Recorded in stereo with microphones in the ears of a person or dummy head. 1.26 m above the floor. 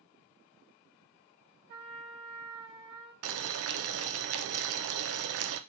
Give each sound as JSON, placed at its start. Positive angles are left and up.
{"t": 1.7, "sound": "a trumpet", "side_deg": -65, "distance_m": 1.5}
{"t": 3.2, "sound": "boiling", "side_deg": -80, "distance_m": 0.5}